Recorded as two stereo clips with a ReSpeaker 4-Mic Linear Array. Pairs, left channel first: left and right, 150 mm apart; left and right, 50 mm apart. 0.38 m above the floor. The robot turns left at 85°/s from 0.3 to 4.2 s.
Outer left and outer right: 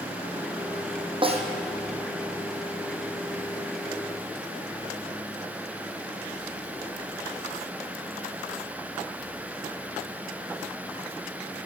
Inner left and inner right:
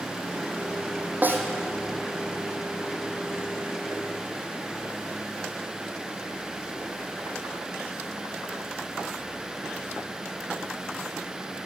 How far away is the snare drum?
About 3 m.